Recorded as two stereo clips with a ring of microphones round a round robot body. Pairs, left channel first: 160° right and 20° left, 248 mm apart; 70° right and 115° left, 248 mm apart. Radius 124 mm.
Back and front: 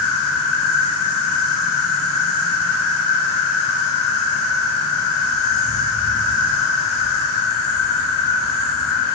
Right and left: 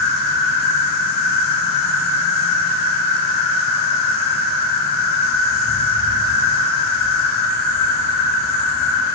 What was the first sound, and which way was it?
An insect, 120° right.